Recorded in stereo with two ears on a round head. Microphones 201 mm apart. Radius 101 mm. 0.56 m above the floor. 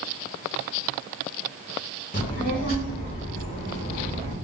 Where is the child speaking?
35° left (ahead or behind), 0.9 m.